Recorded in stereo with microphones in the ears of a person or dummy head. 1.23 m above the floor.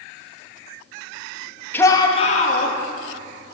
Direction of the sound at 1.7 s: 10° left (ahead or behind).